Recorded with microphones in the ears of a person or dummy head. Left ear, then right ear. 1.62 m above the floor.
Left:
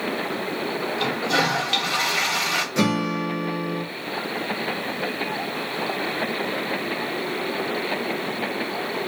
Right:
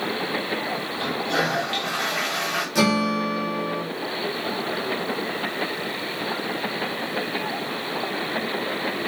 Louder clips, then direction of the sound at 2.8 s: Right 2 dB; 60° right (ahead or behind).